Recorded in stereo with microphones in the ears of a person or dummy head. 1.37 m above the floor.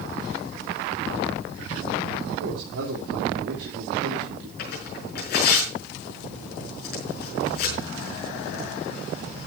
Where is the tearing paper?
60° left (ahead or behind), 5 m.